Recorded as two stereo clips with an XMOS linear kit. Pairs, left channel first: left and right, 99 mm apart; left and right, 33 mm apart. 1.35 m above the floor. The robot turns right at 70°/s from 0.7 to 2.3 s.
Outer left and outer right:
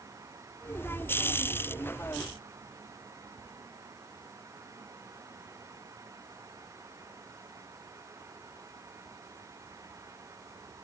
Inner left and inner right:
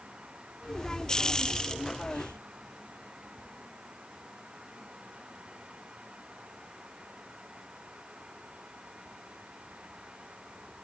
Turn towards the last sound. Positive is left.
No sound to turn to.